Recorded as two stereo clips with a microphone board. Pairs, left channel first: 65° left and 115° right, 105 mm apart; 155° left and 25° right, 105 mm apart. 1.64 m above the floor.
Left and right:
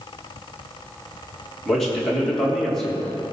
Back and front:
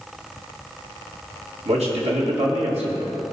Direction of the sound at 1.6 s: 20° right.